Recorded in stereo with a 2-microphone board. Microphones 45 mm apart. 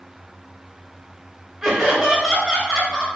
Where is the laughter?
10° right (ahead or behind), 1.0 m.